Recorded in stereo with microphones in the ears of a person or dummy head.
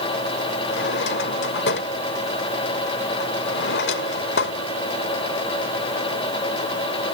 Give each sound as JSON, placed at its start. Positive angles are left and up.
{"t": 0.7, "sound": "a drawer", "side_deg": 70}